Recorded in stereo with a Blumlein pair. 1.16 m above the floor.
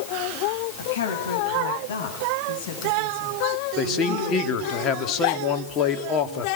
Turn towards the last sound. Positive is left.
turn(degrees=30)